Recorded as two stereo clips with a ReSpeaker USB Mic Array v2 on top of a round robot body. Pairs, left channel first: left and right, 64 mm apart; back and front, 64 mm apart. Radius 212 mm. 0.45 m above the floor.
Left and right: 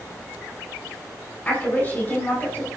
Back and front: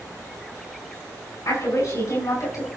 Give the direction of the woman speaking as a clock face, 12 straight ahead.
7 o'clock.